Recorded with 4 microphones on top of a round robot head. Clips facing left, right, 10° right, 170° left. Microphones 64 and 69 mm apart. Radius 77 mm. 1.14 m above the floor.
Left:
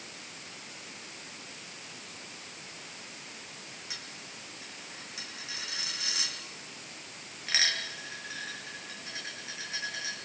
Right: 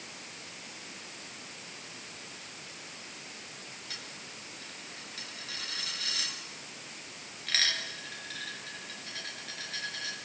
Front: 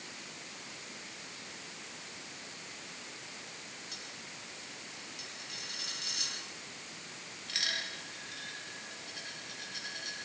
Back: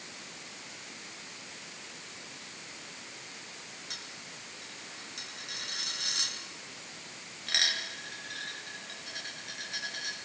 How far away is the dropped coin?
About 7 m.